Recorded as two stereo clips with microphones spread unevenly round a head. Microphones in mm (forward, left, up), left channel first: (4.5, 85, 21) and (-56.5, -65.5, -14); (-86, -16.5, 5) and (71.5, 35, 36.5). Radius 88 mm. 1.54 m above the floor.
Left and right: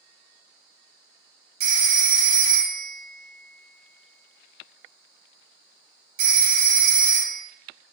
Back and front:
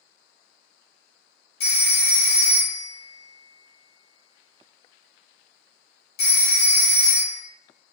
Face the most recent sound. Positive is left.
turn(degrees=-110)